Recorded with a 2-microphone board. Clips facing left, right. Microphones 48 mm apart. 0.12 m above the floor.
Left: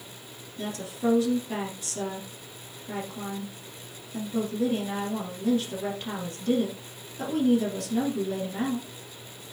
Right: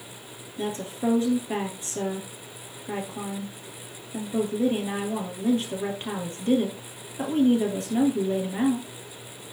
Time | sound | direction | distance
0.6 | a woman speaking | 30° right (ahead or behind) | 2.5 m